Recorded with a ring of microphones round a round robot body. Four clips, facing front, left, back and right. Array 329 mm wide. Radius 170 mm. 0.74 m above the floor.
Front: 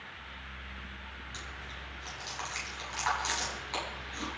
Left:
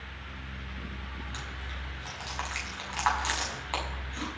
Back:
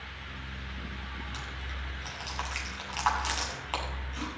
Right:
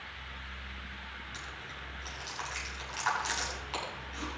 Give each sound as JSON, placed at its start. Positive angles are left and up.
{"t": 1.3, "sound": "chewing", "azimuth_deg": 130, "distance_m": 6.0}